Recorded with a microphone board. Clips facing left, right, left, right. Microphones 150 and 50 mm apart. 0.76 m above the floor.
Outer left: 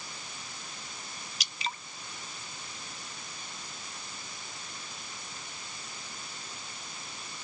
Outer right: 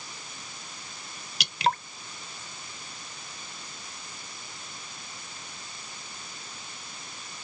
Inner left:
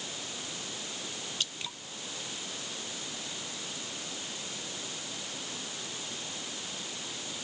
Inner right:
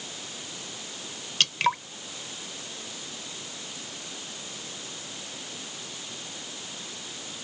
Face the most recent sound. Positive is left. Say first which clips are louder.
# outer right 13 dB, inner right 18 dB
turn(degrees=-75)  # may be behind; listen again after turning